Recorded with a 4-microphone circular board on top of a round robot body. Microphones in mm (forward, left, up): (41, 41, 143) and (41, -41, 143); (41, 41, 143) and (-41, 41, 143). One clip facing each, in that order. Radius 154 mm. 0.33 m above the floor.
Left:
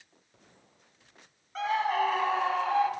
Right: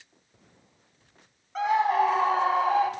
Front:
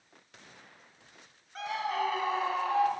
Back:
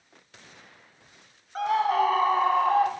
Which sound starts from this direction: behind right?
A scream, at 1.6 s.